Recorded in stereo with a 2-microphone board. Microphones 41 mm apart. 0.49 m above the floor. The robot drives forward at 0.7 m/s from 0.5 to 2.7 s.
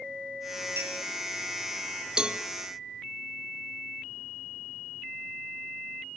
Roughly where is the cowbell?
Right.